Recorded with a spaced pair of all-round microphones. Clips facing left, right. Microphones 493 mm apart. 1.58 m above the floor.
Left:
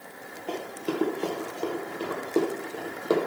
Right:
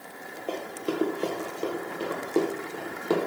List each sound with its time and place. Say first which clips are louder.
0.5 s running footsteps: even; 15° left (ahead or behind), 1.9 m; by 3.2 s 15° right (ahead or behind), 2.5 m